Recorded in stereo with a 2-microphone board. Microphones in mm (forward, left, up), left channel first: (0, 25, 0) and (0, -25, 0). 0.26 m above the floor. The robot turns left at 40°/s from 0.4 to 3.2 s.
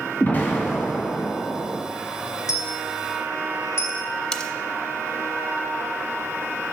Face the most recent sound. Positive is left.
turn(degrees=15)  # may be behind; listen again after turning